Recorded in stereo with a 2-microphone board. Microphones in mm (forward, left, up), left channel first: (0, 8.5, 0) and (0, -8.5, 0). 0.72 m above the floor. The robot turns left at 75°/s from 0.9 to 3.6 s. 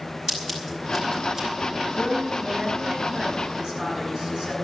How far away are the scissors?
About 5 m.